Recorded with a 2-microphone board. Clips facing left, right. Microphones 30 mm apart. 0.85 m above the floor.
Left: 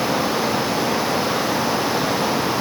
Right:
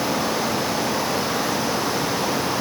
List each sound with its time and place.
Only background noise.